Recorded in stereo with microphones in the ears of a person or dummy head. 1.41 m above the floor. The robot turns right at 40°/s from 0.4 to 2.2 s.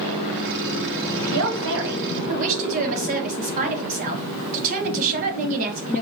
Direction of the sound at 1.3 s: 75° right.